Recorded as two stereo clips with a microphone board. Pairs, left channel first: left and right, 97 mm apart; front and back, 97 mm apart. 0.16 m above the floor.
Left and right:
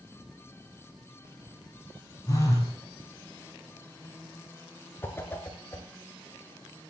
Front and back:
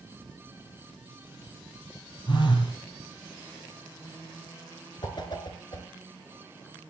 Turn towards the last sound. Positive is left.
turn(degrees=25)